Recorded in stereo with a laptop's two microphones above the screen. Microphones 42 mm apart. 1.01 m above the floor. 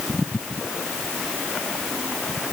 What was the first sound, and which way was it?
Only background noise.